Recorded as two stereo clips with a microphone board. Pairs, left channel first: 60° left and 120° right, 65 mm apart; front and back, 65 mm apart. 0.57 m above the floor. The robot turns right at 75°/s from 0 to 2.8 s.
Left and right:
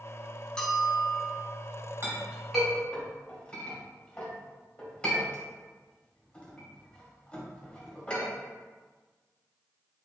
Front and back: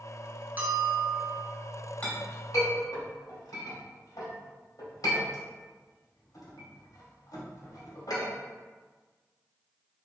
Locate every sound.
0.6 s a bell: 130° left, 0.7 m; by 1.4 s 160° right, 0.7 m
2.0 s a clink: 70° right, 1.6 m; by 8.3 s 10° right, 1.6 m